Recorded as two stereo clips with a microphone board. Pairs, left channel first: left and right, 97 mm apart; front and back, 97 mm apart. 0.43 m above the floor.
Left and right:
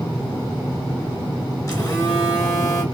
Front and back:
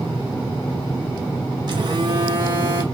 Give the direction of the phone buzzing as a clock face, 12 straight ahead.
7 o'clock.